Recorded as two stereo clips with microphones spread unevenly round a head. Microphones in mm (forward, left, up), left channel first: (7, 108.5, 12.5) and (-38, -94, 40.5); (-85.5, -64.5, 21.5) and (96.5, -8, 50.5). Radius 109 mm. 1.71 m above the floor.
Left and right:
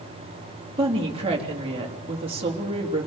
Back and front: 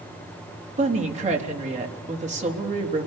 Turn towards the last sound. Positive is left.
turn(degrees=-35)